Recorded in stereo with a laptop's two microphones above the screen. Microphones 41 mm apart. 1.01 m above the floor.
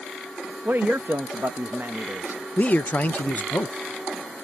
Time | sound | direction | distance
0.7 | a man speaking | 55° right (ahead or behind) | ?
2.6 | a man speaking | 45° left (ahead or behind) | ?